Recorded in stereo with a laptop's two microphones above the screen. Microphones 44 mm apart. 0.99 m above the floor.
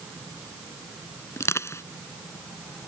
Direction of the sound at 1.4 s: 75° left (ahead or behind).